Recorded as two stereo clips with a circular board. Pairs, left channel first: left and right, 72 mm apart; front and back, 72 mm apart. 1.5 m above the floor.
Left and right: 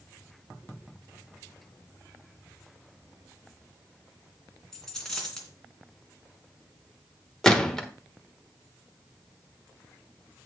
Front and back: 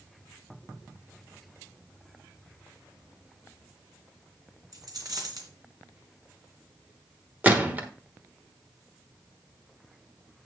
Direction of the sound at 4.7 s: 175° left.